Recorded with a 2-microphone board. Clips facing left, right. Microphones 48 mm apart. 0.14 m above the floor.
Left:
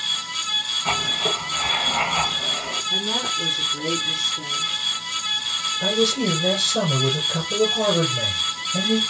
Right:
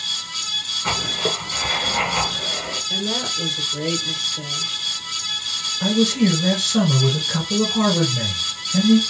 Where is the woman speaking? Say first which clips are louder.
Even; 50° right (ahead or behind), 2.5 m.